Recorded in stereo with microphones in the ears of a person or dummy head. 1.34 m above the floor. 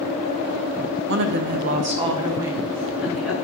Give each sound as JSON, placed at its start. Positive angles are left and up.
{"t": 1.1, "sound": "a woman speaking", "side_deg": -70, "distance_m": 0.6}